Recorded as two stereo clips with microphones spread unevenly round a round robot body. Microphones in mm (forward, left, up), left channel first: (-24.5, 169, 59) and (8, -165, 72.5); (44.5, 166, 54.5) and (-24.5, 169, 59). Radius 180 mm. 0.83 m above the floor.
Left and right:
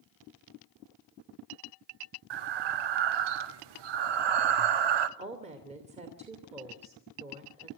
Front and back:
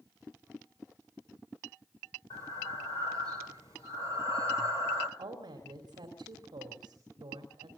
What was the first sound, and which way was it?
Breathing, 70° right.